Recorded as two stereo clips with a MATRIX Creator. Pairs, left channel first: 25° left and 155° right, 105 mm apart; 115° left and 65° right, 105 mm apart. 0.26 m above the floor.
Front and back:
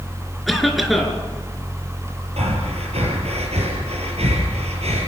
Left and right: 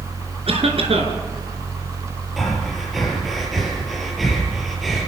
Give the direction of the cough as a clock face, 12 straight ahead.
2 o'clock.